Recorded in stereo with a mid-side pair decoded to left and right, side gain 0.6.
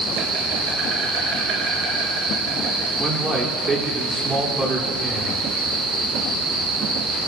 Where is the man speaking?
25° right, 3.5 m.